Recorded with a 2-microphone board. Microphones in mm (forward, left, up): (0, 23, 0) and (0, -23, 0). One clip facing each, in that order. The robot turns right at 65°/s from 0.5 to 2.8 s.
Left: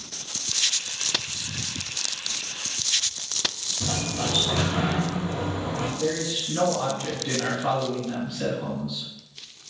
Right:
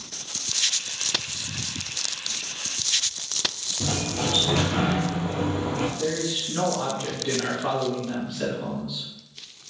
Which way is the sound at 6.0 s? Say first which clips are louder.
Even; 5° right (ahead or behind).